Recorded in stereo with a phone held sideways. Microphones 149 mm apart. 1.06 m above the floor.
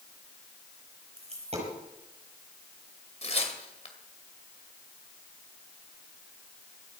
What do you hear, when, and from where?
1.2 s a dropped coin: 45° right (ahead or behind), 6 m
3.2 s tearing paper: 45° left (ahead or behind), 2 m